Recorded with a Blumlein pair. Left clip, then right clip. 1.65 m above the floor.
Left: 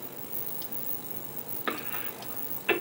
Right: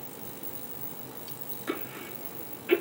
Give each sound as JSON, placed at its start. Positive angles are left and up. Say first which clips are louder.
{"t": 1.7, "sound": "a cough", "louder": "left 2 dB", "azimuth_deg": 40, "distance_m": 2.5}